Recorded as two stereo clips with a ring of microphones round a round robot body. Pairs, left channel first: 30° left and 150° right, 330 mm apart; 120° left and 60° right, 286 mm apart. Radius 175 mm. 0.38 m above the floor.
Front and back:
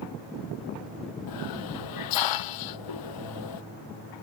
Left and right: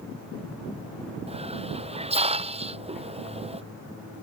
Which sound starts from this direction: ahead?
A hiss, at 1.3 s.